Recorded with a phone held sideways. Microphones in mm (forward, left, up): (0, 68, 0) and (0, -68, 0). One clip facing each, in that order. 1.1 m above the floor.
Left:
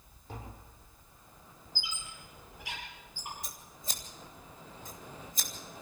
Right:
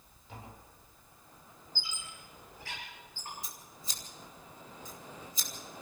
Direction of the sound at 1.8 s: 15° left (ahead or behind).